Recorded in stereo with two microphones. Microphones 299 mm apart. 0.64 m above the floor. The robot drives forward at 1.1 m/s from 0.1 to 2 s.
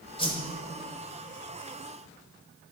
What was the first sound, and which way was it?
A whoosh, 15° left (ahead or behind).